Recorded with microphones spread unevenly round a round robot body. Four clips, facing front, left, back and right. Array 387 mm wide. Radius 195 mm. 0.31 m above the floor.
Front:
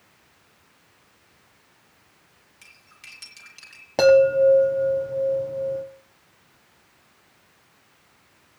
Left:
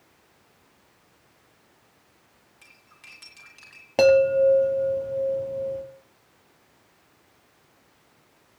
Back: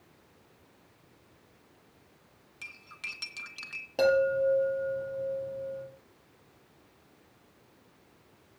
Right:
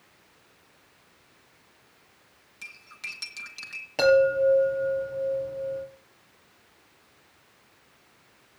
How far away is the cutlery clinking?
About 2.5 m.